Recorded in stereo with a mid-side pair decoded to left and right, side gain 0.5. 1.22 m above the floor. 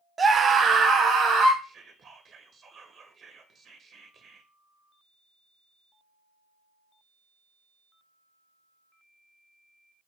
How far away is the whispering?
About 0.9 m.